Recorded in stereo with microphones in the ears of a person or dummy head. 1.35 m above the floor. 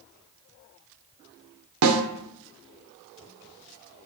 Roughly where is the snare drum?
Right.